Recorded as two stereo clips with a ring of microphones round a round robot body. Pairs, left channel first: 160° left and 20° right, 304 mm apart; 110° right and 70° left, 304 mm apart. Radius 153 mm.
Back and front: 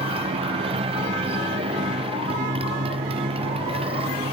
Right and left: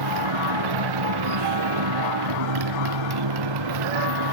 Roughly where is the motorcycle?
Ahead left.